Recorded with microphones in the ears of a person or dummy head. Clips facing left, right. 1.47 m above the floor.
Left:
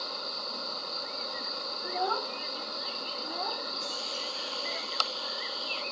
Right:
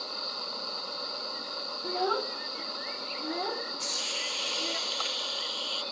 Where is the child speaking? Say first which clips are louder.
Right 2 dB; 35° right (ahead or behind); by 4.8 s 45° right (ahead or behind).